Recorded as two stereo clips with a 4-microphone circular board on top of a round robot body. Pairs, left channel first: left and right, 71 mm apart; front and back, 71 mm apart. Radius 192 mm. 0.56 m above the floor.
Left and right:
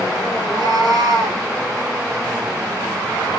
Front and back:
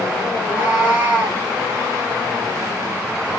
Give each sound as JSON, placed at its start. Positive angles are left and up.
{"t": 0.3, "sound": "a cat meowing", "azimuth_deg": -115, "distance_m": 4.5}